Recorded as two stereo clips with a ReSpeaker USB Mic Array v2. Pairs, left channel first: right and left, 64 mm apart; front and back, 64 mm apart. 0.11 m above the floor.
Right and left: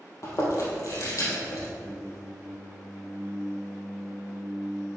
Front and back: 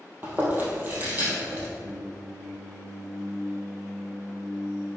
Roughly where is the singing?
Behind.